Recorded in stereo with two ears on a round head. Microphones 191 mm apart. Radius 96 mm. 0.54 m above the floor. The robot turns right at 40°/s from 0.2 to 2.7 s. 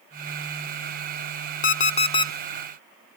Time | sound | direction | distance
1.6 | an alarm clock | 40° left (ahead or behind) | 0.6 m